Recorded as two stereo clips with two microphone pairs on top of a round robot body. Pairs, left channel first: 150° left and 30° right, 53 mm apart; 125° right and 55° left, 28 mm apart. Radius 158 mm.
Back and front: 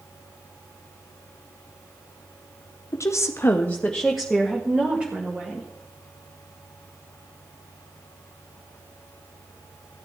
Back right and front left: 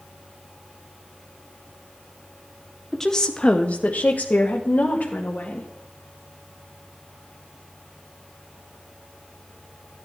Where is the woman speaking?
160° left, 1.1 m; by 5.7 s 95° right, 2 m.